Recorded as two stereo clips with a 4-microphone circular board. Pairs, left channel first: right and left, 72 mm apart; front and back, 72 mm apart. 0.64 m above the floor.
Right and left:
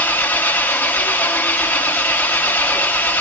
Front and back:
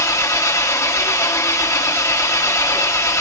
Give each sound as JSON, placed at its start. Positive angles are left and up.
{"t": 0.0, "sound": "an engine running", "azimuth_deg": -35, "distance_m": 1.0}